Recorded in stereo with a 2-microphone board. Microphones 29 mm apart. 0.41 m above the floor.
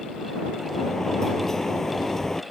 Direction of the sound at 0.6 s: 15° left (ahead or behind).